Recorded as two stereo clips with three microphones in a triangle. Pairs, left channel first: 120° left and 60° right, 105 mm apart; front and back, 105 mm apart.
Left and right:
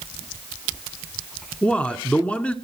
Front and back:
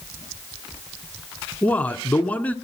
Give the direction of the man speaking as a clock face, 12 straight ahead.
10 o'clock.